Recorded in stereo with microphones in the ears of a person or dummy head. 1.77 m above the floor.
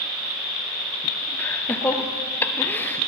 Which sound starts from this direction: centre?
Laughter, at 1.4 s.